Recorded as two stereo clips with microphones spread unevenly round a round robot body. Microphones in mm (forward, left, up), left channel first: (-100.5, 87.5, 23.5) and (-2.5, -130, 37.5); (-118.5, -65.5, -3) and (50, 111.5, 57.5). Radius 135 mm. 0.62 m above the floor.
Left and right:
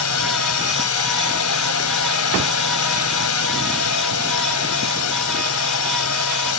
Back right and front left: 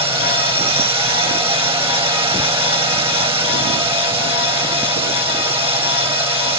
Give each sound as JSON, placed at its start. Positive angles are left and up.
{"t": 0.0, "sound": "a drone", "azimuth_deg": 120}